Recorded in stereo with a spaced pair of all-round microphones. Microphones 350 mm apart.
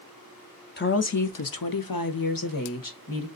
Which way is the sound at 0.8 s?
30° left (ahead or behind).